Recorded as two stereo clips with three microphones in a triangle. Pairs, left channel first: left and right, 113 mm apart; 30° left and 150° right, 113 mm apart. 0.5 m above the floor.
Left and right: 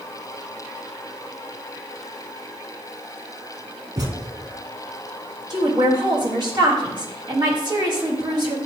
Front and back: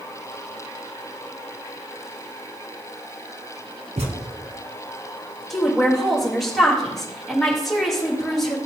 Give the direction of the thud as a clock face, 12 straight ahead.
5 o'clock.